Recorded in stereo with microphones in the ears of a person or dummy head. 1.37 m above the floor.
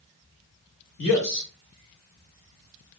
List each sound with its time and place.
1.0 s a man speaking: 65° left (ahead or behind), 1.6 m